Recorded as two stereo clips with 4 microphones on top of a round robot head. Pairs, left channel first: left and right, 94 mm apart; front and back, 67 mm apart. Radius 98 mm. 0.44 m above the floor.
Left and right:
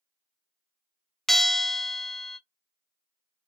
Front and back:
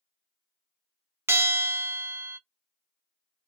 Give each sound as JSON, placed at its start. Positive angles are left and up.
{"t": 1.3, "sound": "a bell", "azimuth_deg": 175, "distance_m": 0.7}